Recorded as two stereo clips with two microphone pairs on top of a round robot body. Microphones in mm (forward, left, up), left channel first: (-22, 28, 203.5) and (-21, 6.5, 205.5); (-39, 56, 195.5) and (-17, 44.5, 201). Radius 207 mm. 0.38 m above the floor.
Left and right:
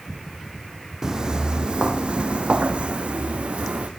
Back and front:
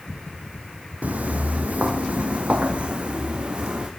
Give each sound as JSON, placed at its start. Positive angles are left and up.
{"t": 1.0, "sound": "footsteps", "azimuth_deg": -25, "distance_m": 1.2}